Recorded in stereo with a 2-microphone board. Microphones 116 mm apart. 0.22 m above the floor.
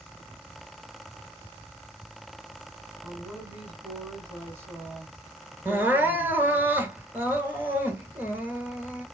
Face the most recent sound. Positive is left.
turn(degrees=-15)  # may be behind; listen again after turning